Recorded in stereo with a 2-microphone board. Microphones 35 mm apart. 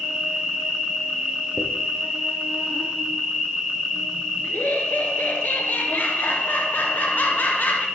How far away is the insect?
About 2.5 m.